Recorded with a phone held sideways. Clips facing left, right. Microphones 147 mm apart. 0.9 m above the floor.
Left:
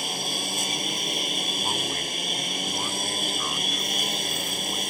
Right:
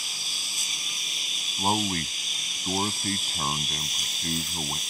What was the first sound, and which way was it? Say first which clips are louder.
A lawn mower: left 14 dB; 60° left (ahead or behind).